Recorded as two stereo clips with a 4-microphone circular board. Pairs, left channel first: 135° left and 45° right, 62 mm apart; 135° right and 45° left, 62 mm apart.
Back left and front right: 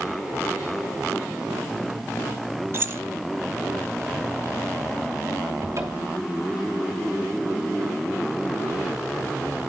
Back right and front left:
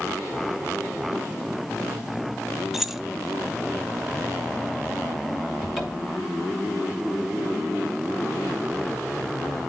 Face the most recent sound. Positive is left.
turn(degrees=-45)